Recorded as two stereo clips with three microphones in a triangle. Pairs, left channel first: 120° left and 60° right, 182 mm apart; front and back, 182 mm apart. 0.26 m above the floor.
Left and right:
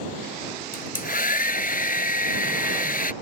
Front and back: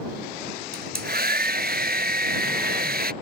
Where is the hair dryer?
155° left.